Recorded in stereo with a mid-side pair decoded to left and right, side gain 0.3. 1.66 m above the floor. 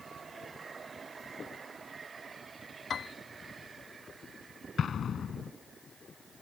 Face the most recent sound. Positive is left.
turn(degrees=70)